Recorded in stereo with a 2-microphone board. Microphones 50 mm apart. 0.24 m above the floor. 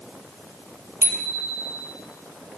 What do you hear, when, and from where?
1.0 s a bicycle bell: 55° right (ahead or behind), 5.5 m